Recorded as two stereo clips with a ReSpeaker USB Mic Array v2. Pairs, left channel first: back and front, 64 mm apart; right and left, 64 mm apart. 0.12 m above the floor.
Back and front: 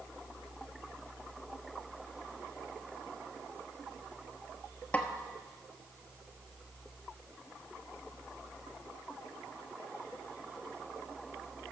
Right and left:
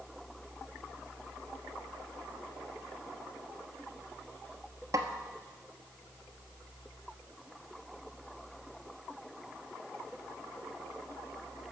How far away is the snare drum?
About 1.0 m.